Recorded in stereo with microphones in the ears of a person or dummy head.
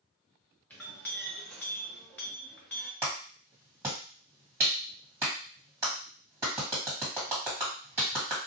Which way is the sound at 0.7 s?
10° left (ahead or behind).